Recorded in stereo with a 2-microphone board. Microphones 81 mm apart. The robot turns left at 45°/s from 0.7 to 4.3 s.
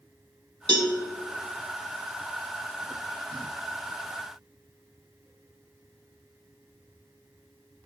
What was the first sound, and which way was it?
A cowbell, 65° right (ahead or behind).